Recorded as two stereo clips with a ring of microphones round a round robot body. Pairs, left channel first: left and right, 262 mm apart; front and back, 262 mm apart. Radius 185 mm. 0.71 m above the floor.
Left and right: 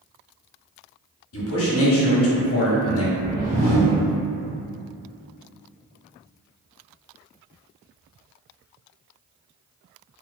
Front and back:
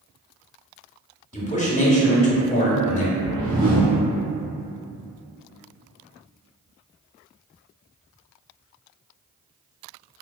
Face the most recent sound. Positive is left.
turn(degrees=-135)